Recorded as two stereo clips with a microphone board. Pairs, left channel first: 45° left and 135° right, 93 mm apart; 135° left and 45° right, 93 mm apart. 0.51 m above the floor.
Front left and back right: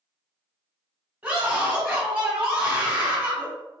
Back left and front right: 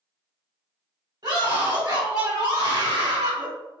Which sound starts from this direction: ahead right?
A scream, at 1.2 s.